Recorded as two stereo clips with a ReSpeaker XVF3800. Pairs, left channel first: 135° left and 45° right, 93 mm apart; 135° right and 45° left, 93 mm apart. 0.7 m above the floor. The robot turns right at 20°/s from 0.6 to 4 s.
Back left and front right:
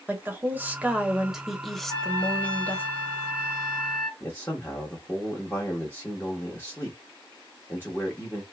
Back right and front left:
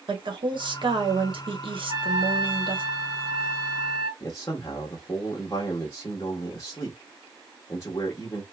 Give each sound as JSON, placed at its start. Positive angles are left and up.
{"t": 0.1, "sound": "a woman speaking", "azimuth_deg": 25, "distance_m": 1.1}
{"t": 1.9, "sound": "a trumpet", "azimuth_deg": -5, "distance_m": 1.6}
{"t": 4.2, "sound": "a man speaking", "azimuth_deg": -165, "distance_m": 1.0}